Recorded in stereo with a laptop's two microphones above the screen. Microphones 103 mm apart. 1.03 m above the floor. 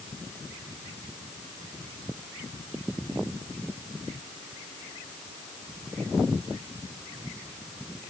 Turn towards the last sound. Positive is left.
No sound to turn to.